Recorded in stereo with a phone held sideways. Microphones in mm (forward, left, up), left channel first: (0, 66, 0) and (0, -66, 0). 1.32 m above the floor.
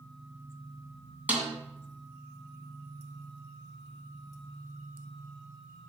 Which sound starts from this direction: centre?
A snare drum, at 1.3 s.